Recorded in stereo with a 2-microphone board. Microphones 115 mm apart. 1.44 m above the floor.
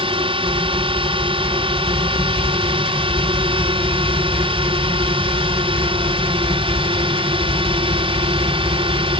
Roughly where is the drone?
Right.